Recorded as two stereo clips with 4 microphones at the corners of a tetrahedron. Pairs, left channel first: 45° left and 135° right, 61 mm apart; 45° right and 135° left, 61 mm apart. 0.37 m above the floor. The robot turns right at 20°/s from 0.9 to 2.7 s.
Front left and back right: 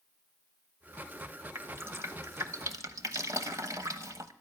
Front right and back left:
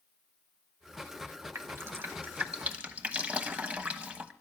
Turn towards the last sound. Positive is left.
turn(degrees=-160)